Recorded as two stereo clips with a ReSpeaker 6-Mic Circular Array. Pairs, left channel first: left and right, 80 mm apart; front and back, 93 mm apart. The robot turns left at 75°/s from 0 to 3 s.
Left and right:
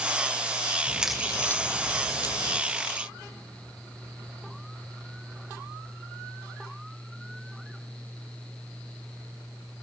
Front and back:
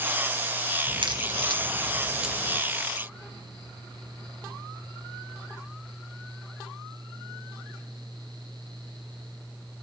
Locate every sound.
0.9 s a crack: 160° right, 2.5 m; by 2.6 s 70° left, 2.5 m